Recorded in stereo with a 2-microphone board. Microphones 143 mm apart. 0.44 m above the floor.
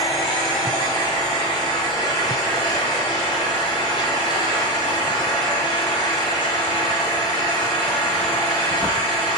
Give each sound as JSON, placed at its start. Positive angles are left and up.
{"t": 0.0, "sound": "an engine running", "side_deg": 0, "distance_m": 3.5}